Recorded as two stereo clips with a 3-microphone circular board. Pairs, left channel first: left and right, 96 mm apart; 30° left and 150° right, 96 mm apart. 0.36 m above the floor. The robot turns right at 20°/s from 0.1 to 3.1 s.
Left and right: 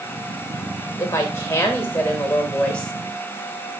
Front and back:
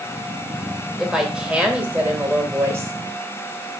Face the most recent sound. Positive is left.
turn(degrees=170)